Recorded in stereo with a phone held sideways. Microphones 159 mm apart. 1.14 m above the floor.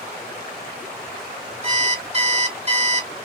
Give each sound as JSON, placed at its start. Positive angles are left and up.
{"t": 1.6, "sound": "an alarm clock", "side_deg": -40, "distance_m": 2.0}